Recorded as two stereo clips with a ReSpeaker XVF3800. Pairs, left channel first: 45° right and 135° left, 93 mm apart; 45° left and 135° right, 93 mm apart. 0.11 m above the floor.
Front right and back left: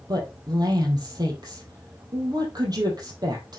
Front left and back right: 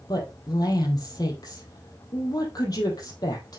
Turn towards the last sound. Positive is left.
turn(degrees=90)